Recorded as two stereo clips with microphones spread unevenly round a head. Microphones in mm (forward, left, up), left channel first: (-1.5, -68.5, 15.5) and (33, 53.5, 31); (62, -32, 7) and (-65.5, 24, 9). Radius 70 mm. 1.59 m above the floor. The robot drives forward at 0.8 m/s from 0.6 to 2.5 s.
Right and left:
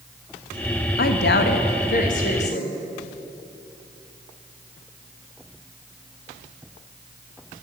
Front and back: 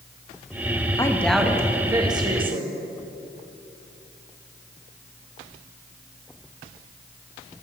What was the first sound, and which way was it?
A woman speaking, 90° right.